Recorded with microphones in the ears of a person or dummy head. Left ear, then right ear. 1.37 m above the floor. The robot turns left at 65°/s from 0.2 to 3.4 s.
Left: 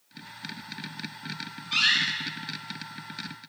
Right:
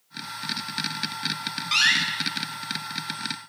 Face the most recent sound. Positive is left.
turn(degrees=35)  # may be behind; listen again after turning